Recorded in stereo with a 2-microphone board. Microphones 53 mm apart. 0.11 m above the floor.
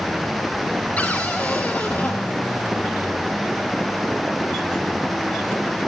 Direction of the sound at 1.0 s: 30° left (ahead or behind).